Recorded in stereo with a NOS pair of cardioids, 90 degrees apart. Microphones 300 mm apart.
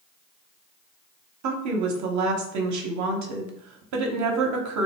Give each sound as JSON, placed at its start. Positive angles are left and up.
{"t": 1.4, "sound": "a woman speaking", "azimuth_deg": -70, "distance_m": 0.7}